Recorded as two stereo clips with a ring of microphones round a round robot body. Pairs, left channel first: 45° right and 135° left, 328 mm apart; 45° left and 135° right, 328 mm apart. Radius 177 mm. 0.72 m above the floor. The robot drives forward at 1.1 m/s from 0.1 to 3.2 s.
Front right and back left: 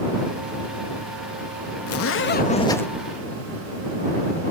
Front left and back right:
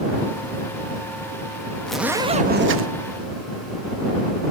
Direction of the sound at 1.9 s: 40° right.